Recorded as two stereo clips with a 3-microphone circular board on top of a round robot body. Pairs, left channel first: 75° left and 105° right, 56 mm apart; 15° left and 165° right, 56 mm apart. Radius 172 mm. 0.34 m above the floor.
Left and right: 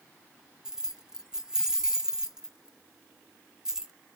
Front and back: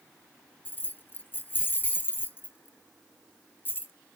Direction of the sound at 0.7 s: 30° right.